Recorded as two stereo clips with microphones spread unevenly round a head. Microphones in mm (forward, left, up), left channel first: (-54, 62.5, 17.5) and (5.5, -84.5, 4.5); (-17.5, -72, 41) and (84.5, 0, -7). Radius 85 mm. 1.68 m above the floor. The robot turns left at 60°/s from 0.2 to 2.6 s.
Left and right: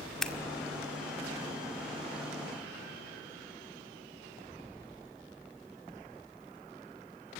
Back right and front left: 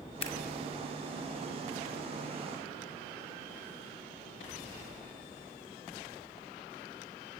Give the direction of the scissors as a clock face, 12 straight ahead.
5 o'clock.